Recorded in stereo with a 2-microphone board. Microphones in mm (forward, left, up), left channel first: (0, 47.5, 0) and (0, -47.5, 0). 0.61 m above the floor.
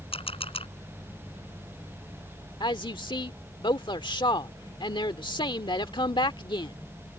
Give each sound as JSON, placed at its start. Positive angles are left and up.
{"t": 0.1, "sound": "a camera shutter", "side_deg": 85}
{"t": 2.6, "sound": "a woman speaking", "side_deg": 60}